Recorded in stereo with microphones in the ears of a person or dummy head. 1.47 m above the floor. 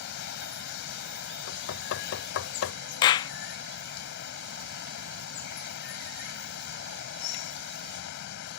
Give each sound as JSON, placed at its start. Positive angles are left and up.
{"t": 0.0, "sound": "running water", "side_deg": 65}
{"t": 1.5, "sound": "knocking", "side_deg": 80}
{"t": 3.0, "sound": "a clap", "side_deg": 25}